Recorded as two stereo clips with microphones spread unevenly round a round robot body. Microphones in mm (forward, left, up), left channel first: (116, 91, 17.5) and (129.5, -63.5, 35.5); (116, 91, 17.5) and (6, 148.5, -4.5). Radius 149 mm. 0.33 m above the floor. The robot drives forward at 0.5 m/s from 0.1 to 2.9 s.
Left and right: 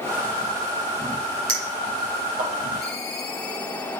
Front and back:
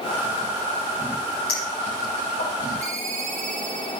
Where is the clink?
55° right, 7.5 m; by 2.5 s 60° right, 7.5 m.